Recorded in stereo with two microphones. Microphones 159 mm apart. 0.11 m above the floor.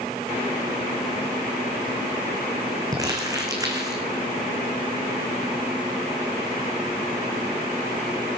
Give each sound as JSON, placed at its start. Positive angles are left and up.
{"t": 2.9, "sound": "crumpling", "side_deg": -20, "distance_m": 2.5}